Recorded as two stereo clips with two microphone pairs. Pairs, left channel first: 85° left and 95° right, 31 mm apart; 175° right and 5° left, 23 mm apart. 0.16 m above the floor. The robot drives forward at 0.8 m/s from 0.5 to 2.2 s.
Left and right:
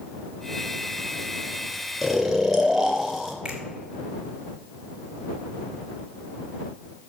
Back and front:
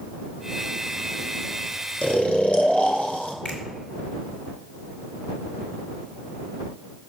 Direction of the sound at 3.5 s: 165° right.